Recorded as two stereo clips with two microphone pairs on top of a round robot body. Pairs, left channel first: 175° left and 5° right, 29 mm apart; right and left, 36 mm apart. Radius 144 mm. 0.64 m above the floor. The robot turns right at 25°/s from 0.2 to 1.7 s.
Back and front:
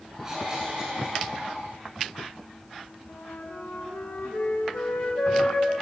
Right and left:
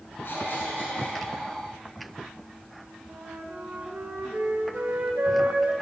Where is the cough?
75° right, 10 m; by 1.2 s 50° right, 10 m.